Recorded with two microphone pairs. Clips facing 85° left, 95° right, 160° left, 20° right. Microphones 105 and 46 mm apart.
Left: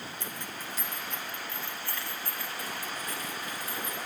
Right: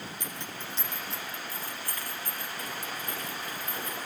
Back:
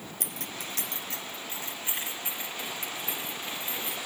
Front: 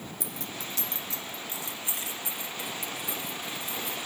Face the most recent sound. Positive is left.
turn(degrees=-135)